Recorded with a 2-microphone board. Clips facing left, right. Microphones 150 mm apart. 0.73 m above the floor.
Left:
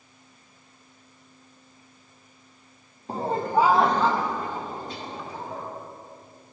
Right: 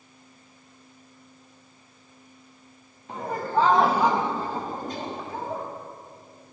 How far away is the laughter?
About 0.8 m.